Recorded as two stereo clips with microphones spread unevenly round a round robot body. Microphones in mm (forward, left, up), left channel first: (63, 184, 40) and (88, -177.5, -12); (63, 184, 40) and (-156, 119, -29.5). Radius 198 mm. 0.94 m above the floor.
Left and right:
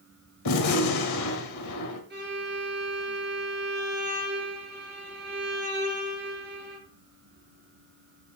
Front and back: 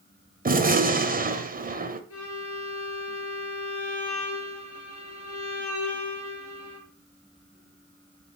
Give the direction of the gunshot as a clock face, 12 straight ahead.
7 o'clock.